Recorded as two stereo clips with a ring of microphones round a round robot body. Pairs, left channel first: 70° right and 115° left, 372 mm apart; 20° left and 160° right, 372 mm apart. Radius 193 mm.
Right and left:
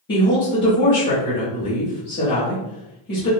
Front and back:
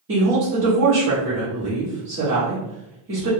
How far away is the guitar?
No guitar in this recording.